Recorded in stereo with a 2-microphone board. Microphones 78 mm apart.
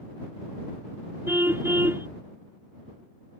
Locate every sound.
1.3 s a car horn: 30° right (ahead or behind)